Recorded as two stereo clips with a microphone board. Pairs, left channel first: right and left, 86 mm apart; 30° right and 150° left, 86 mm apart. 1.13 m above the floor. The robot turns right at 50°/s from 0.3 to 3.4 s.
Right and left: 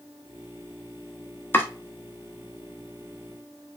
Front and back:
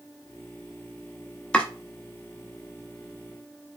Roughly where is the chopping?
Right.